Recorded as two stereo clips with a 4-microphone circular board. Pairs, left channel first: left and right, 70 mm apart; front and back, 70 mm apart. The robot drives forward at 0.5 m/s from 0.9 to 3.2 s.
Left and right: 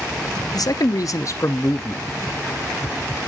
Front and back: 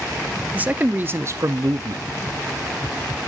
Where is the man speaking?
115° left, 0.6 m; by 2.0 s 150° left, 0.9 m.